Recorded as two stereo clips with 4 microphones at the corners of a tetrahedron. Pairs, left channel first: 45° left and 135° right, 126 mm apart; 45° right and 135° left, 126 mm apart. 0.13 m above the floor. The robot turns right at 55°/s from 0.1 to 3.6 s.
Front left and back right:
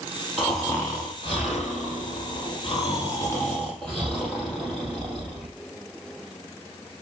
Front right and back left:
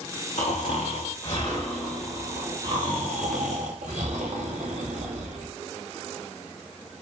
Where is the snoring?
50° right, 7 m; by 5.5 s 130° left, 7 m.